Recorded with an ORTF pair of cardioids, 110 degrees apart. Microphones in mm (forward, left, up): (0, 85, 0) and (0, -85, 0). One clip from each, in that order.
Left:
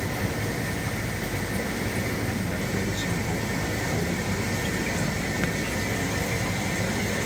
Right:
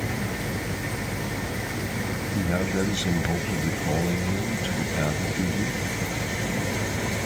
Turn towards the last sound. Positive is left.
turn(degrees=-50)